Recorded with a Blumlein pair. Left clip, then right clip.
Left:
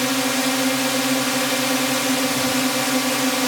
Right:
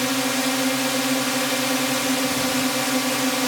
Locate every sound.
0.0 s a drone: 5° left